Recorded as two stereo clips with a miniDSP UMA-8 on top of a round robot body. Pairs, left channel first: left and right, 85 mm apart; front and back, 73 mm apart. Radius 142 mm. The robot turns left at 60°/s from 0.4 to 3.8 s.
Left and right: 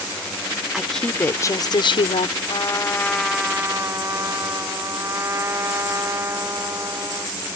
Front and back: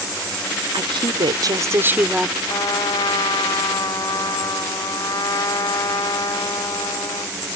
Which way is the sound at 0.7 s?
175° right.